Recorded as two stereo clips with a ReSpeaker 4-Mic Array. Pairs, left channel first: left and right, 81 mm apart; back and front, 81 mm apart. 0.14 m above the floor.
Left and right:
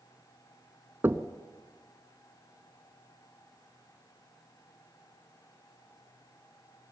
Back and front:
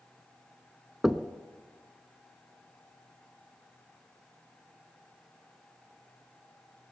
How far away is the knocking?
About 0.9 m.